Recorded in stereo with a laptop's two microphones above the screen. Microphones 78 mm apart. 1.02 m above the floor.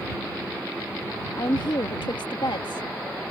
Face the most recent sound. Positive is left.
turn(degrees=75)  # may be behind; listen again after turning